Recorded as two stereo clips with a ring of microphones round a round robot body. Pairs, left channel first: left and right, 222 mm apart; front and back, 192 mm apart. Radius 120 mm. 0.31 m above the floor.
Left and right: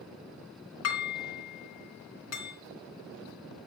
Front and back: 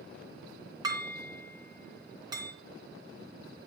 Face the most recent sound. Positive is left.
turn(degrees=110)